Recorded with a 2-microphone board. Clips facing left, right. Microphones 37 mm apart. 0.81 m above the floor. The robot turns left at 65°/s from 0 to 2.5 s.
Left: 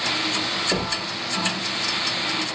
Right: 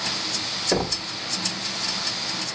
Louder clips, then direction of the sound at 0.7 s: Even; 15° right (ahead or behind).